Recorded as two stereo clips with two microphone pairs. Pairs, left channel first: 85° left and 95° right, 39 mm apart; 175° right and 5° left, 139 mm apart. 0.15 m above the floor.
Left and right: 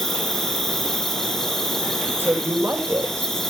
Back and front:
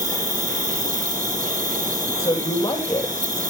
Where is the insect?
Straight ahead, 3.5 m.